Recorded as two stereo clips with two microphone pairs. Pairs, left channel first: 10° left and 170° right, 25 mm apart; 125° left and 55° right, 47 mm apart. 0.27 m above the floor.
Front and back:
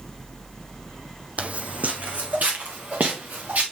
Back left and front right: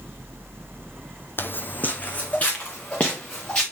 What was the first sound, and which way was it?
Footsteps, 165° left.